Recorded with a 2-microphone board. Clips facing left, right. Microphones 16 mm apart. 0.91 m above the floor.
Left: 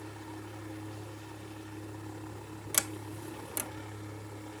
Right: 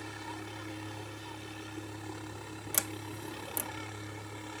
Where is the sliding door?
20° left (ahead or behind).